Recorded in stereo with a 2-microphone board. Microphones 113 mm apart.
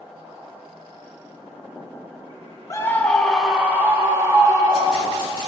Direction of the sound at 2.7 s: 30° left (ahead or behind).